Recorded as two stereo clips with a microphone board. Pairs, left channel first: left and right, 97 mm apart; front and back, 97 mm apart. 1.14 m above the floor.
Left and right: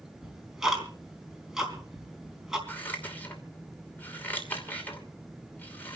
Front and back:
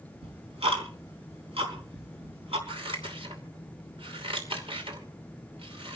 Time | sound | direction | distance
0.2 | ticking | 175° right | 4 m
2.7 | scissors | 160° left | 2.5 m